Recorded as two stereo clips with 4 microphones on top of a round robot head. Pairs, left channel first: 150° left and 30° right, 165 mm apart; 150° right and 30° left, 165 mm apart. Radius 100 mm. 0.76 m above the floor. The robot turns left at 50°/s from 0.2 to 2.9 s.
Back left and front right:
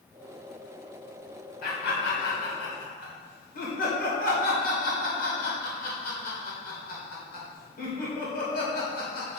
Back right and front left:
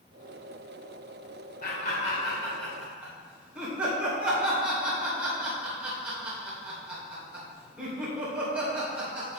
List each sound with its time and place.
1.6 s laughter: straight behind, 2.5 m; by 9.4 s 115° left, 2.5 m